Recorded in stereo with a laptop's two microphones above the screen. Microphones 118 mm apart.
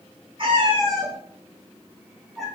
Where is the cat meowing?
50° right (ahead or behind), 1.4 m; by 2.5 s 5° left (ahead or behind), 0.9 m.